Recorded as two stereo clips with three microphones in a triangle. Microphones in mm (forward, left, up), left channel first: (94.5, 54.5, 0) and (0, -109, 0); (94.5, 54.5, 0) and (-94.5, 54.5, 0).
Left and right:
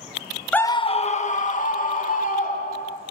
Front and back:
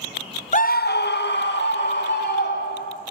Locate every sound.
0.5 s a scream: 20° right, 0.6 m; by 3.0 s 20° left, 4 m